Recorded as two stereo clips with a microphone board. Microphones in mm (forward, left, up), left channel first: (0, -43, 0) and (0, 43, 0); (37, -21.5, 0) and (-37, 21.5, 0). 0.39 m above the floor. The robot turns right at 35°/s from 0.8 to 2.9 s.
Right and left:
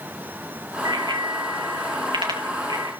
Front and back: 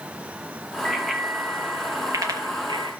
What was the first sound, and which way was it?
A bicycle bell, 50° left.